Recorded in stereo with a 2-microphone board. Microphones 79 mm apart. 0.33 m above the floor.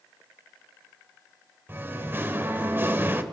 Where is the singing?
25° right (ahead or behind), 1.0 m.